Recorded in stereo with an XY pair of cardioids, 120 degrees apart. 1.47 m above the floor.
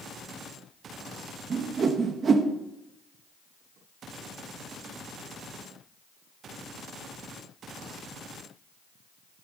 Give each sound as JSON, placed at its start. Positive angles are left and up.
{"t": 1.5, "sound": "a whoosh", "azimuth_deg": -40, "distance_m": 1.6}